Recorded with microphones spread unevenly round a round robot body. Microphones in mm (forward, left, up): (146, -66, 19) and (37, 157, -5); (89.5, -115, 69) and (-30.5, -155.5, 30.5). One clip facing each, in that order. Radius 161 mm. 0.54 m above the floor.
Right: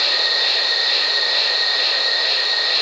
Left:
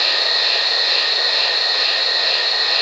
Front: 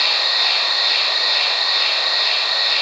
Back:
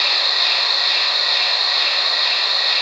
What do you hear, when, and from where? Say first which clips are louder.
0.0 s an insect: left 1 dB, front 1 dB; 10° right, 1.2 m